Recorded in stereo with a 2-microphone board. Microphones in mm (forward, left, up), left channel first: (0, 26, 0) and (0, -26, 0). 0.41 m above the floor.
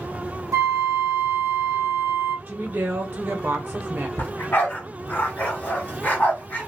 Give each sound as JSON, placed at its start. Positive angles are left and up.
{"t": 0.5, "sound": "a flute", "side_deg": -65, "distance_m": 0.9}
{"t": 2.5, "sound": "a woman speaking", "side_deg": -35, "distance_m": 1.0}
{"t": 4.2, "sound": "a dog barking", "side_deg": 35, "distance_m": 1.5}